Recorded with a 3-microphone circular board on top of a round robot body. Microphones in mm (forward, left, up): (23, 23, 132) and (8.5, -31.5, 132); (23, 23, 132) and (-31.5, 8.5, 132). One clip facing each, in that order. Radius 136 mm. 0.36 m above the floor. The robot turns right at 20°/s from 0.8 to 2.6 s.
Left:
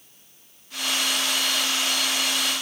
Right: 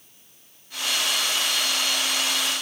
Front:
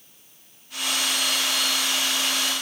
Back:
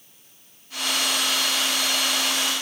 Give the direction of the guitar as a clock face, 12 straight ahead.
No guitar in this recording.